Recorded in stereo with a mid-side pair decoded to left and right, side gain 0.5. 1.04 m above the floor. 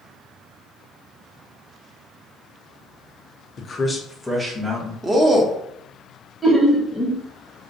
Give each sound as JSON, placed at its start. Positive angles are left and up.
{"t": 3.6, "sound": "a man speaking", "azimuth_deg": 50, "distance_m": 0.6}
{"t": 5.0, "sound": "a man speaking", "azimuth_deg": -25, "distance_m": 0.7}
{"t": 6.4, "sound": "laughter", "azimuth_deg": -10, "distance_m": 0.9}